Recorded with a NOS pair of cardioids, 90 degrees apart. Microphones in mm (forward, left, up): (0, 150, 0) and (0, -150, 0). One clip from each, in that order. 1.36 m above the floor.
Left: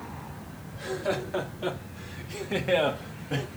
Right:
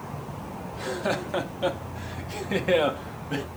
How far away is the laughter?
About 2.5 m.